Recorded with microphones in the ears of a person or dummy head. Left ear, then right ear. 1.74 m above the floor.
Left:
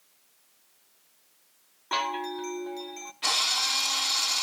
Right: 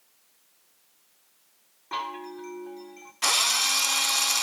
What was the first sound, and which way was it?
A chime, 30° left (ahead or behind).